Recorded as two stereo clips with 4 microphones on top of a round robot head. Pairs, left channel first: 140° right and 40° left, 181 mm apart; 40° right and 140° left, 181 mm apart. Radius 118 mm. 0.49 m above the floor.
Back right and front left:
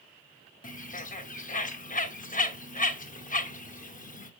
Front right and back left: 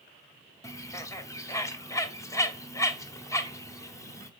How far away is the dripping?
I don't hear dripping.